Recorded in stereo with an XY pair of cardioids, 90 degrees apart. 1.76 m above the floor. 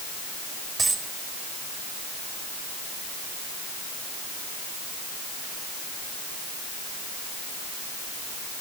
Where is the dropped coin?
40° right, 5 m.